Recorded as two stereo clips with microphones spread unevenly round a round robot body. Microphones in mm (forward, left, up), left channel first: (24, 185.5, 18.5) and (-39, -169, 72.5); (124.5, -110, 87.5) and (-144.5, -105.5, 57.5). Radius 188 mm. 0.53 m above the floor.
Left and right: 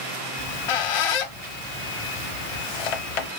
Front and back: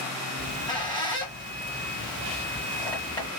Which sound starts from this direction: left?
A squeak, at 0.4 s.